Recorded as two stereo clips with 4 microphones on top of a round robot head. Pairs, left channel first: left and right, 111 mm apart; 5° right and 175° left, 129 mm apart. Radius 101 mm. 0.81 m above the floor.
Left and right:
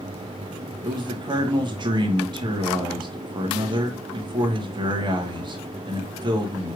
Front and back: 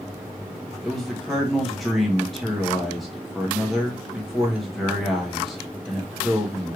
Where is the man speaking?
95° right, 1.2 m.